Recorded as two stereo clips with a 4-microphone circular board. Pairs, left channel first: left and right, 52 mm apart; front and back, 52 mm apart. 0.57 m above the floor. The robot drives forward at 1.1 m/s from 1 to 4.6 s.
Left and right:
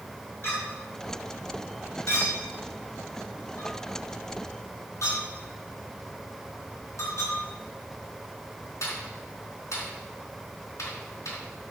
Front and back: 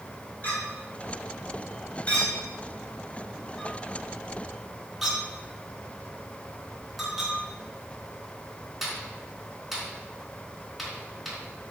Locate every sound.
0.4 s a clink: 50° left, 6 m; by 11.4 s 90° left, 4.5 m